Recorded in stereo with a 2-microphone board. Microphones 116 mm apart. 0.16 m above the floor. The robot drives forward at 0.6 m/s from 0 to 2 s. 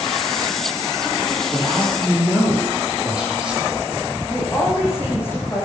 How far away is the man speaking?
About 6 m.